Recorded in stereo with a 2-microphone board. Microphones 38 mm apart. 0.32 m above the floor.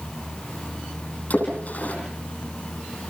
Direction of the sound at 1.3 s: 50° left (ahead or behind).